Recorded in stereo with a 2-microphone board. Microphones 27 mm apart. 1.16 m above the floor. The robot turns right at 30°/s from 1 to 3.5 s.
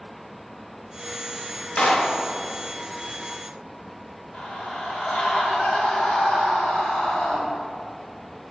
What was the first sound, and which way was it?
A clap, 40° left (ahead or behind).